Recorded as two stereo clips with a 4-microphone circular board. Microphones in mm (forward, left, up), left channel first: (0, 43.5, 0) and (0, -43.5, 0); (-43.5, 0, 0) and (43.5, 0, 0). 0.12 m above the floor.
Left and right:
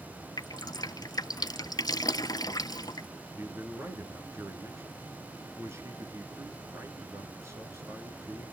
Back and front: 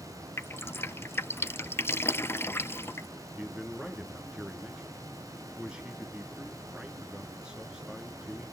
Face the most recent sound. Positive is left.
turn(degrees=-75)